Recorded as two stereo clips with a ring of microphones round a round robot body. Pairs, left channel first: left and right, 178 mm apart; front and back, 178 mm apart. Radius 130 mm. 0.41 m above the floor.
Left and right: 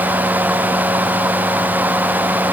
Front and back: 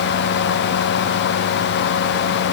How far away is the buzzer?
I don't hear a buzzer.